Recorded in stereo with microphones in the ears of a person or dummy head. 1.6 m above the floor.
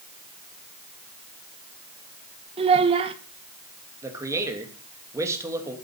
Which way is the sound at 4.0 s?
10° right (ahead or behind).